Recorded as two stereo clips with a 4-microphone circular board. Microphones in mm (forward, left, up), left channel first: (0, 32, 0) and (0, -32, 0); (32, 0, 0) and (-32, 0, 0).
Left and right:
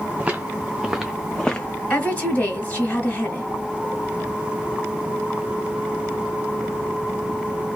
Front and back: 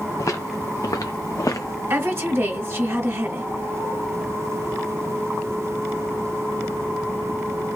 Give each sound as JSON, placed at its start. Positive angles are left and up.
{"t": 0.2, "sound": "footsteps", "azimuth_deg": -20, "distance_m": 1.0}
{"t": 1.9, "sound": "a woman speaking", "azimuth_deg": 150, "distance_m": 2.0}